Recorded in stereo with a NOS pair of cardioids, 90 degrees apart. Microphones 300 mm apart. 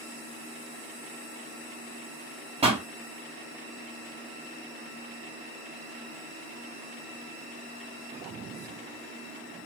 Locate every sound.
2.6 s a pop: 20° right, 2.5 m